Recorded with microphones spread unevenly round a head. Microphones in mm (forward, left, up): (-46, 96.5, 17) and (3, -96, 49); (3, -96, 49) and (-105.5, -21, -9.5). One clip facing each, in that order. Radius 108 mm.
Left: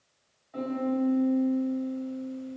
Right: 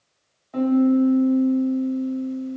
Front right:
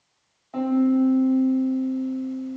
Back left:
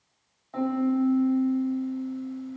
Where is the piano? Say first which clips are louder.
Right 11 dB, front right 5 dB; 105° right, 0.8 m.